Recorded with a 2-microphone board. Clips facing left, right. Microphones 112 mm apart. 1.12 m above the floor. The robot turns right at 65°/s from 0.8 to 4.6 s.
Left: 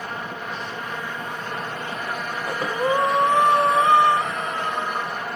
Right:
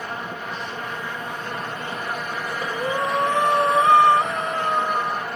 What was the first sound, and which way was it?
Breathing, 95° left.